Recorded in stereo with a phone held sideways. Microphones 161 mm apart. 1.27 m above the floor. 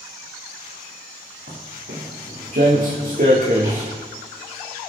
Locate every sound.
1.5 s footsteps: 70° right (ahead or behind), 4 m; by 3.9 s 50° right (ahead or behind), 3 m